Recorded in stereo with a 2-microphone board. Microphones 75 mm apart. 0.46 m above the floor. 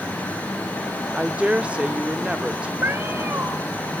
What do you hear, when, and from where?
1.1 s a woman speaking: 15° right (ahead or behind), 0.7 m
2.8 s a cat meowing: 30° right (ahead or behind), 1.5 m